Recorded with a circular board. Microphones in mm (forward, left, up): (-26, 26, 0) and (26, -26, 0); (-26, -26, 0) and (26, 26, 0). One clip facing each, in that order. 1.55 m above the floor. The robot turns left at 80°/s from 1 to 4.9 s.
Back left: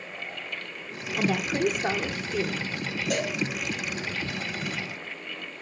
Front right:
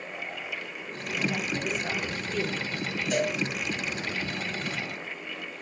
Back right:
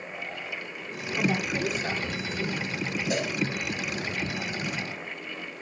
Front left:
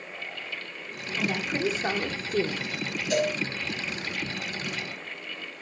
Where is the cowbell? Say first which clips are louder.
Front right 2 dB, front left 6 dB; 160° left, 3.5 m; by 3.4 s 140° left, 3.5 m.